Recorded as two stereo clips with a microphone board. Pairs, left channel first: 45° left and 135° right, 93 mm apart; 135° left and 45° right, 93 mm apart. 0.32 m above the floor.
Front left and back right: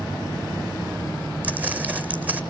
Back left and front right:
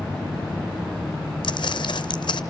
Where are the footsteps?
155° left, 0.7 m.